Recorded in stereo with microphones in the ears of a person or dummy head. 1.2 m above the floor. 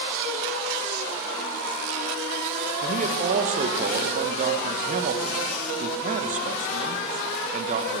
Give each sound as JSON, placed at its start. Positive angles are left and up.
{"t": 2.8, "sound": "a man speaking", "side_deg": -45, "distance_m": 1.1}